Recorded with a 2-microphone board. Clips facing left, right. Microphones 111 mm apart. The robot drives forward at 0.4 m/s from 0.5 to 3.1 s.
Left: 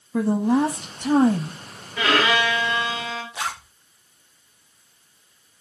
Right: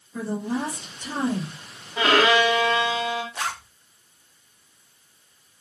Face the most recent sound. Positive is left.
turn(degrees=5)  # may be behind; listen again after turning